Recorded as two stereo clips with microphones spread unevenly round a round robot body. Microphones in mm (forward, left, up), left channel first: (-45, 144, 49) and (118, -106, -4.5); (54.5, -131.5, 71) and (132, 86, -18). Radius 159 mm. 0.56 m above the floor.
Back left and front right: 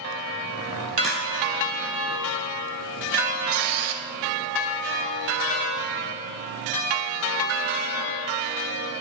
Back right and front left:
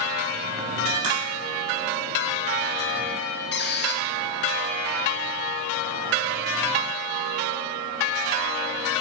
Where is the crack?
35° left, 2.5 m.